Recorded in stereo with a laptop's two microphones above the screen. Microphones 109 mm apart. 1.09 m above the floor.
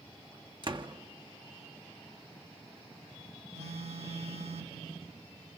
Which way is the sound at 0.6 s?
45° right (ahead or behind).